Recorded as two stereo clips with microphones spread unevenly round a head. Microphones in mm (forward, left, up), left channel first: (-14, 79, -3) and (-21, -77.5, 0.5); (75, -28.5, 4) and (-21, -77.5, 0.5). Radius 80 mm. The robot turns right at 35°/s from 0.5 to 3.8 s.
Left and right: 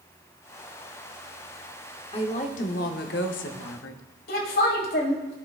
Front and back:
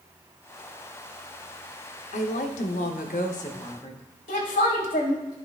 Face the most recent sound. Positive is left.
turn(degrees=55)